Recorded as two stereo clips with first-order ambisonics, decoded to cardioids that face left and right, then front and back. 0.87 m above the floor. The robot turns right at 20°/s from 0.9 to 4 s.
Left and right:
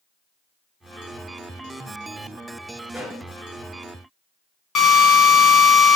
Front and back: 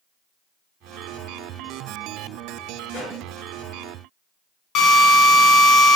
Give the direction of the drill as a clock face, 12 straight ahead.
11 o'clock.